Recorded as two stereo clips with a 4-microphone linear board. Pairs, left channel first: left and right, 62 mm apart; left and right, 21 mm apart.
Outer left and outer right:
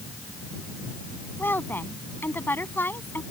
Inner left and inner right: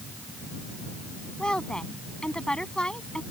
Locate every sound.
1.4 s a woman speaking: 35° left (ahead or behind)